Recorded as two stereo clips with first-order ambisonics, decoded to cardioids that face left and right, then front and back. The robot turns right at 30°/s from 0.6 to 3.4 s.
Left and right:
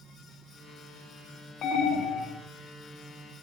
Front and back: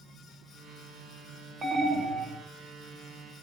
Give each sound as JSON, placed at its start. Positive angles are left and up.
{"t": 1.6, "sound": "an alarm", "azimuth_deg": 120, "distance_m": 1.9}